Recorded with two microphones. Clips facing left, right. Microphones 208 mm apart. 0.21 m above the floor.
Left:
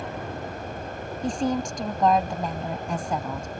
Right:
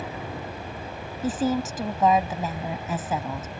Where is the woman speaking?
5° right (ahead or behind).